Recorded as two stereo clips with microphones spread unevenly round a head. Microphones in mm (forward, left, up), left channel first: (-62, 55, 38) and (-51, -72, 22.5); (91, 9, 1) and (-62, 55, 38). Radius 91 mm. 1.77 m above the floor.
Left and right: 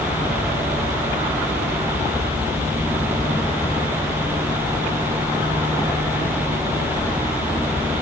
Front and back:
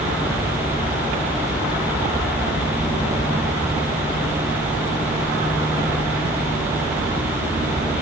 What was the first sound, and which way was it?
Only background noise.